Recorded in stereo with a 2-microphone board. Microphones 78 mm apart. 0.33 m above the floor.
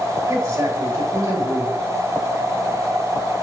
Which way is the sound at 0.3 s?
45° right (ahead or behind).